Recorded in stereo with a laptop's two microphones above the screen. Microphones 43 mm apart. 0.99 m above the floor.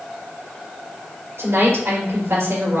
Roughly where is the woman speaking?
Right.